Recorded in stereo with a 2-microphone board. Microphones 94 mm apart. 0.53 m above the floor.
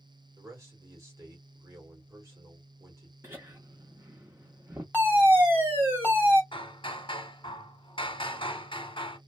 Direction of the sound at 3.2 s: 25° right (ahead or behind).